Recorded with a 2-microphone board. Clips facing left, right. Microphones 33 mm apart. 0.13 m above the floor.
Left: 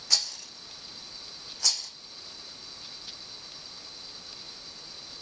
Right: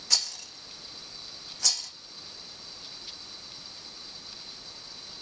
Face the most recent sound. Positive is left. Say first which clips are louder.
# even
turn(degrees=5)  # may be behind; listen again after turning